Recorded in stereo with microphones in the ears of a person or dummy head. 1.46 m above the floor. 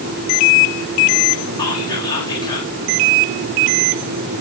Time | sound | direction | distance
1.6 | whispering | 30° left (ahead or behind) | 4 m